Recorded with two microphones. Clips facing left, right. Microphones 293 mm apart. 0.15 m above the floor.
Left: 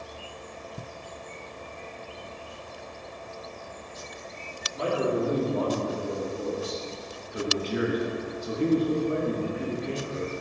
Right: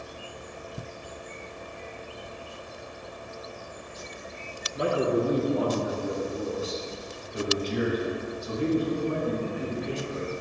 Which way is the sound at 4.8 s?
20° right (ahead or behind).